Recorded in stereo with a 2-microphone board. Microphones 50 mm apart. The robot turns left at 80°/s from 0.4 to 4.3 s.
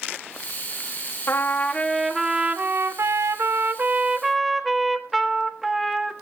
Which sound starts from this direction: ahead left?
A trumpet, at 1.3 s.